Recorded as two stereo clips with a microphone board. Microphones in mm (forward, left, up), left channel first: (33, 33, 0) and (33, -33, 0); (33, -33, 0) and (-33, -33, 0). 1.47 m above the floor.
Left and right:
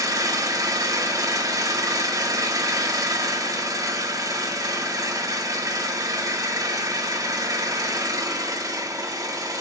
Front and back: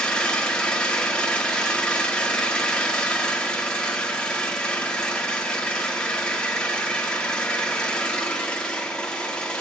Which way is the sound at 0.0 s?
75° right.